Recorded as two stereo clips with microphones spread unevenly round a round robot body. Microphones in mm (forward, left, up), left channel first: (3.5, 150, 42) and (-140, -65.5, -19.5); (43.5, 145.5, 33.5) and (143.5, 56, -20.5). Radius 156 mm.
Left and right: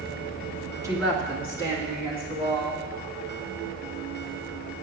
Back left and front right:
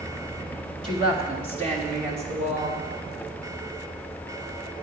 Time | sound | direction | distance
0.8 | a woman speaking | 55° right | 1.4 m